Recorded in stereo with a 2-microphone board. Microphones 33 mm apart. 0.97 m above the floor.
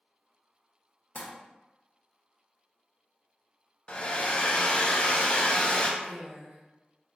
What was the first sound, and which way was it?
Crumpling, 45° left (ahead or behind).